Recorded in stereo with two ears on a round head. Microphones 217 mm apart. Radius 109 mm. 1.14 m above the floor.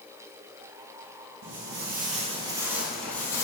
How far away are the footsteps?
About 1.9 m.